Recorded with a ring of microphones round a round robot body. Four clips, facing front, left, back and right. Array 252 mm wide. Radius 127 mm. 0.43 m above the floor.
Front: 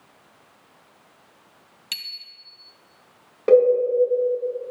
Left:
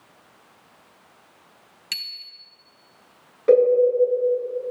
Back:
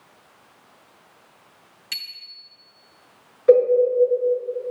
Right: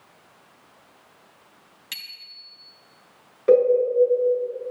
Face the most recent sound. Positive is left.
turn(degrees=5)